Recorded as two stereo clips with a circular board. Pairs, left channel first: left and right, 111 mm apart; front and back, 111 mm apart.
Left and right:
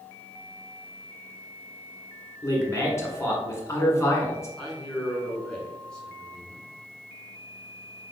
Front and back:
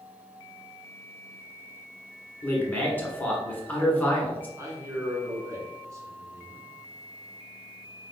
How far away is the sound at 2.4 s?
About 1.2 m.